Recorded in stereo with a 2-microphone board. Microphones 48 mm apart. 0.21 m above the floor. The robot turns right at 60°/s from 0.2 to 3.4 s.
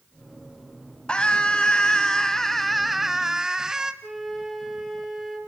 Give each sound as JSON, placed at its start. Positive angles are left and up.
{"t": 1.1, "sound": "a scream", "side_deg": 20, "distance_m": 1.1}
{"t": 4.0, "sound": "a flute", "side_deg": -5, "distance_m": 4.5}